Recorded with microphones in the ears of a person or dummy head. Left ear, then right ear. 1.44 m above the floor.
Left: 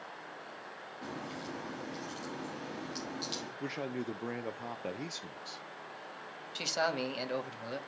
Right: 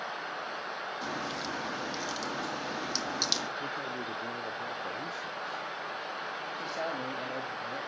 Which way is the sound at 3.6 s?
60° left (ahead or behind).